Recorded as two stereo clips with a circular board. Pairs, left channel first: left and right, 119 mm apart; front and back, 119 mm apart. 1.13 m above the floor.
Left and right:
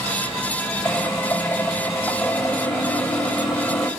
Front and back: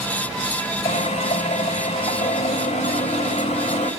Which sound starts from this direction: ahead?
A drill, at 0.8 s.